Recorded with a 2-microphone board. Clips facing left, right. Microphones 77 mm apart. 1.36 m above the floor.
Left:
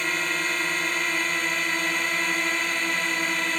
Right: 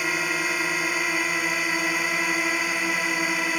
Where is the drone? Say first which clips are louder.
Right 1 dB; 10° right (ahead or behind).